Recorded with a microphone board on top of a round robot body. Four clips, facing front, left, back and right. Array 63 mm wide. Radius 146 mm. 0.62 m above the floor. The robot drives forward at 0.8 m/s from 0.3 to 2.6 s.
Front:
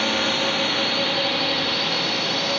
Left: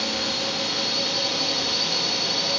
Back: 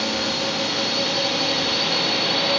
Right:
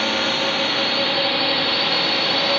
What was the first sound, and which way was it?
A drone, 60° right.